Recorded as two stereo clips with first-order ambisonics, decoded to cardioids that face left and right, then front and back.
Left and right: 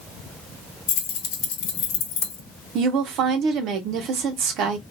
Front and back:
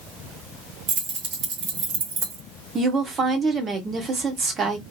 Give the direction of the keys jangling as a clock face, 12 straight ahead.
8 o'clock.